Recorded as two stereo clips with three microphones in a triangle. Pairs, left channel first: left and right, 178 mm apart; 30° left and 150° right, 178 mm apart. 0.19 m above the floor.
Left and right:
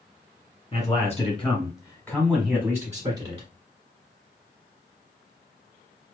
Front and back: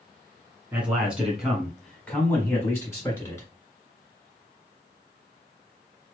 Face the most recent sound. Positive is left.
turn(degrees=-35)